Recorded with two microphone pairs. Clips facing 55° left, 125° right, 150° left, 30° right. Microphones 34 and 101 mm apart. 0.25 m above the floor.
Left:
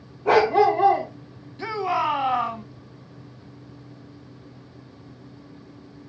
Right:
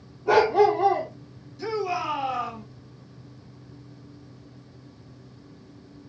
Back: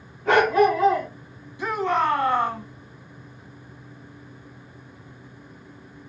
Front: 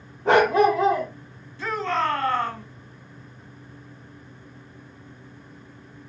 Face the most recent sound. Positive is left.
turn(degrees=80)